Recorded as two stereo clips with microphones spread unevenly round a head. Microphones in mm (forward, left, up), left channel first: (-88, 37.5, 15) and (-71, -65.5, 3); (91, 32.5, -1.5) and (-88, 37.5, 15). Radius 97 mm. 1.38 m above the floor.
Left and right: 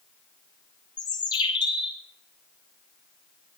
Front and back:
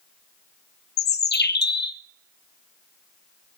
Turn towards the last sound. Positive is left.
turn(degrees=35)